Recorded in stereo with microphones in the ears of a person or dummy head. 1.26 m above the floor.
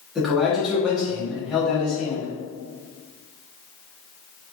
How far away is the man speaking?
About 1.0 m.